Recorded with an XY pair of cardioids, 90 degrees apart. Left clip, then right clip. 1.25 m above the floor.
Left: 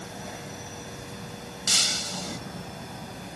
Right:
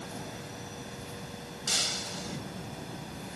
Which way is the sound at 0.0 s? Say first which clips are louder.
Left 3 dB; 20° left.